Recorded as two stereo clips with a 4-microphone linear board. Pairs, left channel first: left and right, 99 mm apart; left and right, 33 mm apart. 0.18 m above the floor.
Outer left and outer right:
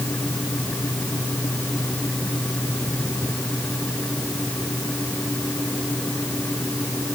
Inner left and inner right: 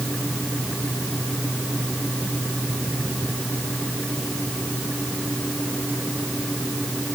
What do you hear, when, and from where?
Only background noise.